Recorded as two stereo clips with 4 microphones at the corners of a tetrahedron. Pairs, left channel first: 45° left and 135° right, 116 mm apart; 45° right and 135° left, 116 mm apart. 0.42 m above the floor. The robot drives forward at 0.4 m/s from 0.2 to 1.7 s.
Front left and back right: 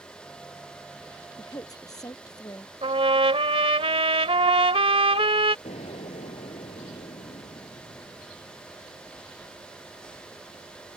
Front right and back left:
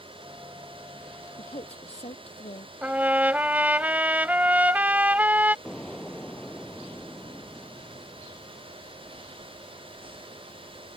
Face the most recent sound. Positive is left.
turn(degrees=45)